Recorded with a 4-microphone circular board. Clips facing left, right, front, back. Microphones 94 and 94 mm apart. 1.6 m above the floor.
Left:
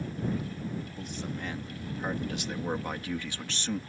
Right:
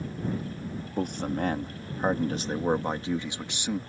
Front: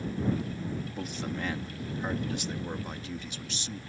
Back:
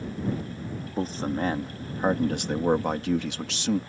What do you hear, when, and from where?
1.0 s a man speaking: 125° right; by 3.8 s 170° right